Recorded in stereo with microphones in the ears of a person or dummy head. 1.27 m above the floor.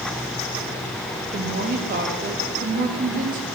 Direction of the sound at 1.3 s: 40° right (ahead or behind).